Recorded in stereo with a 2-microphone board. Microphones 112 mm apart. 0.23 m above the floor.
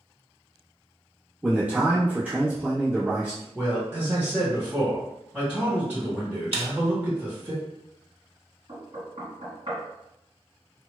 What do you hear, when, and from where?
1.4 s a man speaking: 15° right (ahead or behind), 1.0 m
3.5 s a man speaking: 15° right (ahead or behind), 1.9 m
6.5 s a snare drum: 60° right (ahead or behind), 0.5 m
8.7 s knocking: 45° right (ahead or behind), 1.8 m